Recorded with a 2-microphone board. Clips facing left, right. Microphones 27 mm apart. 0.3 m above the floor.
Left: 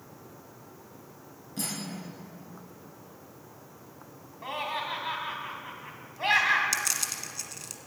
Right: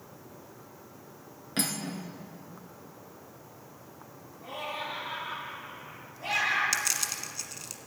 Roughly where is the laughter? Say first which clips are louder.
Left 4 dB; left.